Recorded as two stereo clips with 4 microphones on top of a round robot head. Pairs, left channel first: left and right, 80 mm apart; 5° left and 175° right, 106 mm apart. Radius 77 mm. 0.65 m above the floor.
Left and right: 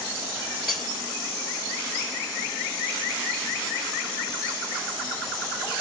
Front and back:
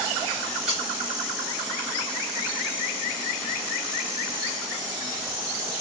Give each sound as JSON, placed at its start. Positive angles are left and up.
{"t": 0.7, "sound": "breaking glass", "azimuth_deg": -160, "distance_m": 5.5}